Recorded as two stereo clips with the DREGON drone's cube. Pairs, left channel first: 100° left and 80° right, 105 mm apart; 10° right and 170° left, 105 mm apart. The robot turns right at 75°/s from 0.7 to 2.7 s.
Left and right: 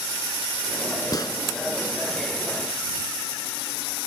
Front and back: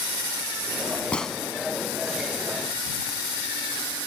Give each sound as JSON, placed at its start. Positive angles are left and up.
{"t": 1.1, "sound": "a gunshot", "azimuth_deg": 65}